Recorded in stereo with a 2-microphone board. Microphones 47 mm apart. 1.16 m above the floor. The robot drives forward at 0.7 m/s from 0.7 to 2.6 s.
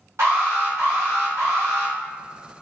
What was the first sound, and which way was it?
An alarm, 70° right (ahead or behind).